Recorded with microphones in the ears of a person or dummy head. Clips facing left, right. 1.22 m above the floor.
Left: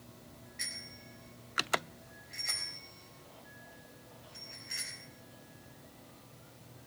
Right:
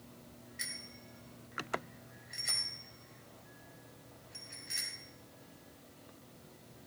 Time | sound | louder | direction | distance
0.6 | a bicycle bell | even | 10° right (ahead or behind) | 3.5 m